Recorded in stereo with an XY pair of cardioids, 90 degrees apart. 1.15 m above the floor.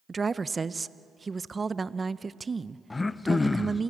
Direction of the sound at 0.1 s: 30° right.